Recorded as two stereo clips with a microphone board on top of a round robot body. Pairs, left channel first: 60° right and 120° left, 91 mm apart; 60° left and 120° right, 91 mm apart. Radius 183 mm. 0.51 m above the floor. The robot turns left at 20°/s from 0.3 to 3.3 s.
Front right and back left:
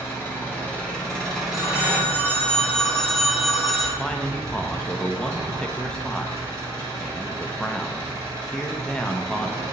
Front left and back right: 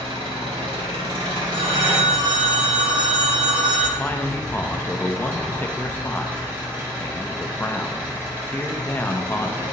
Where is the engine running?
125° right, 2 m; by 9.7 s 175° left, 2 m.